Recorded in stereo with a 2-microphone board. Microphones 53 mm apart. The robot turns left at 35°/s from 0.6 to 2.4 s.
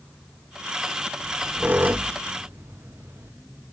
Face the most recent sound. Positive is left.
turn(degrees=-55)  # may be behind; listen again after turning